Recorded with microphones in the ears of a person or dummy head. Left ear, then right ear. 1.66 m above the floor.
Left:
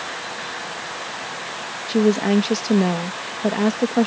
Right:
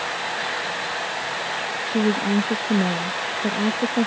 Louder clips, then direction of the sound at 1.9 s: Left 5 dB; 55° left (ahead or behind).